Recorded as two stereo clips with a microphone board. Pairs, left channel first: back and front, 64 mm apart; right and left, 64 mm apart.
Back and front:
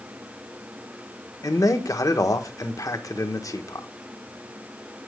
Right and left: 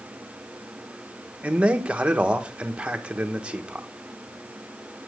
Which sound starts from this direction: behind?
A man speaking, at 1.4 s.